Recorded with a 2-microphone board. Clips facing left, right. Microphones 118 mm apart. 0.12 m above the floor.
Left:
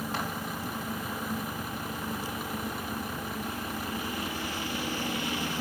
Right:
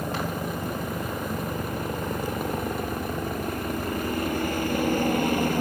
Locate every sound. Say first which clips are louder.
0.0 s a helicopter: right 5 dB; 60° right (ahead or behind); by 5.6 s 55° right (ahead or behind)